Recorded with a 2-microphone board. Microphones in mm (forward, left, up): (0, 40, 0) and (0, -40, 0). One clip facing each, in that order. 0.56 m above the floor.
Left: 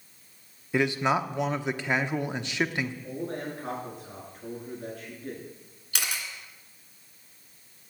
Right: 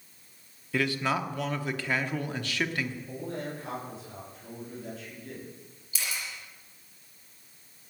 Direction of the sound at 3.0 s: 45° left (ahead or behind).